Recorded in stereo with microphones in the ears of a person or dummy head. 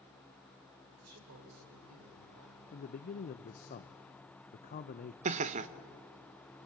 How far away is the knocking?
No knocking in this recording.